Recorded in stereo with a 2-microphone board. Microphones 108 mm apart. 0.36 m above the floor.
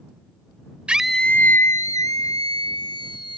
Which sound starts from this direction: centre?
A scream, at 0.9 s.